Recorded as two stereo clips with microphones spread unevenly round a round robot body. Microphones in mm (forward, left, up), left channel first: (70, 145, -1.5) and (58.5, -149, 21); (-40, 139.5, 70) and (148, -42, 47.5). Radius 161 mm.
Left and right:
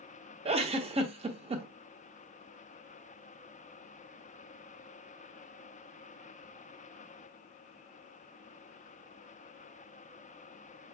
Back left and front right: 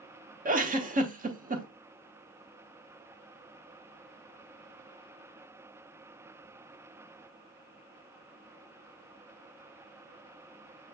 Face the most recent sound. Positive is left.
turn(degrees=-30)